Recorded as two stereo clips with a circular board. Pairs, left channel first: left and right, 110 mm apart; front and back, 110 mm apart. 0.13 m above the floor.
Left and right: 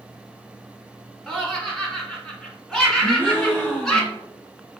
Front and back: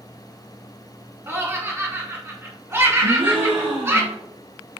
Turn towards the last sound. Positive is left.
turn(degrees=160)